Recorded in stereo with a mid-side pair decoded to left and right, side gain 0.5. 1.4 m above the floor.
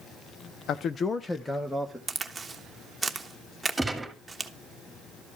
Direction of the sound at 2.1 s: 20° right.